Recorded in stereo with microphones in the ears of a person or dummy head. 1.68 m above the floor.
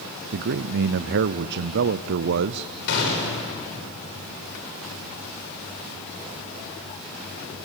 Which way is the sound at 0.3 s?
65° right (ahead or behind).